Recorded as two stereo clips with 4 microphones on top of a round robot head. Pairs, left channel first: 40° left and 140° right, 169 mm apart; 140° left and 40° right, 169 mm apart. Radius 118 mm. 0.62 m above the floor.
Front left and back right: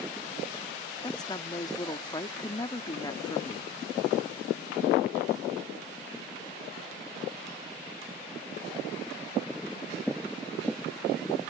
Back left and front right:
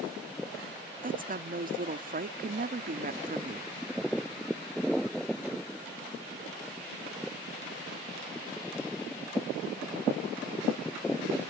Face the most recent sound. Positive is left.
turn(degrees=-25)